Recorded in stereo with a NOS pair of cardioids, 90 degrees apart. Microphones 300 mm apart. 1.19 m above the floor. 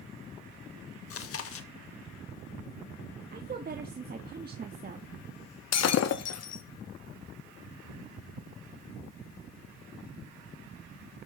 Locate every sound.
1.1 s chewing: 50° left, 1.3 m
3.3 s a woman speaking: 30° right, 1.5 m
5.7 s breaking glass: 60° left, 1.2 m